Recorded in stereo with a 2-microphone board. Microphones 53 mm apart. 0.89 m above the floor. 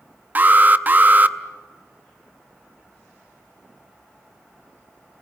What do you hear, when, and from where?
0.3 s an alarm: 35° right (ahead or behind), 0.6 m